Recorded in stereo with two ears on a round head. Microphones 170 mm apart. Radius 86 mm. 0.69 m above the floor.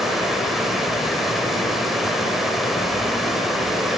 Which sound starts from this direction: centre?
Running water, at 0.0 s.